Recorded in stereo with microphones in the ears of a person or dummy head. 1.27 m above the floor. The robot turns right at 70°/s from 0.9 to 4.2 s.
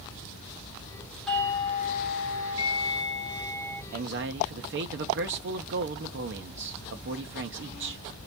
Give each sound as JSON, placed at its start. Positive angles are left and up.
{"t": 1.3, "sound": "a doorbell", "azimuth_deg": 0, "distance_m": 1.0}
{"t": 3.9, "sound": "a man speaking", "side_deg": -40, "distance_m": 0.6}